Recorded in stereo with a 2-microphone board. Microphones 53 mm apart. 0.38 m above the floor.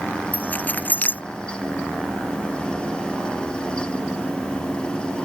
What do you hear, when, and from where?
0.3 s keys jangling: 30° left (ahead or behind)